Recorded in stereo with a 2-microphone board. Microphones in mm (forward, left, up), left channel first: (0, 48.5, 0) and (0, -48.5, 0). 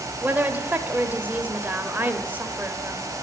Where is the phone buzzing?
I don't hear a phone buzzing.